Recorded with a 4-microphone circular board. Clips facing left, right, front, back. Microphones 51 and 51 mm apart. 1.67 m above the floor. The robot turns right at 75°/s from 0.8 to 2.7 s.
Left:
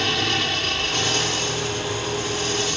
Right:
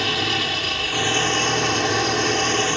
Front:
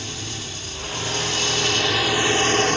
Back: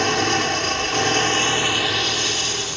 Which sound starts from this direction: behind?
An engine running, at 0.0 s.